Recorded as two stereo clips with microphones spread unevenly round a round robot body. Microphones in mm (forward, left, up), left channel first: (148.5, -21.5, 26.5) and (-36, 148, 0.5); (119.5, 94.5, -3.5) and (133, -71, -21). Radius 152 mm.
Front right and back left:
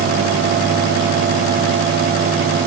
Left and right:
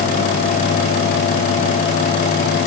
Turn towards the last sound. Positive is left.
No sound to turn to.